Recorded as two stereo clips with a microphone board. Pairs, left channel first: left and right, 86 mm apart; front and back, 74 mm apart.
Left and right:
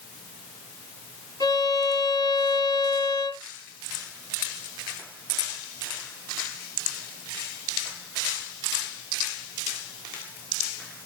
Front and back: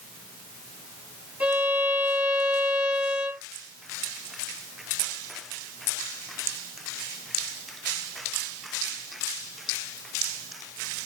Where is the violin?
115° left, 2.0 m.